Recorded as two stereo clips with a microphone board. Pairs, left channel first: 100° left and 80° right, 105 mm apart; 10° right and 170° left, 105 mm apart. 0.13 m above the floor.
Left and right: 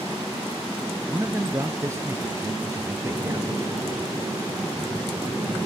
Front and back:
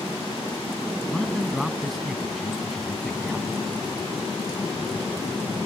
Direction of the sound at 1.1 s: 100° right.